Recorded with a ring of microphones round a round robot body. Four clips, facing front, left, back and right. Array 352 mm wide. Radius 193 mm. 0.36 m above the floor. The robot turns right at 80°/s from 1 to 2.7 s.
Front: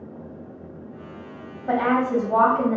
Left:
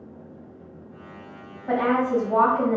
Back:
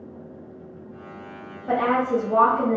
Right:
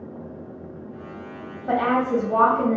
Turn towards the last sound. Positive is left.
turn(degrees=25)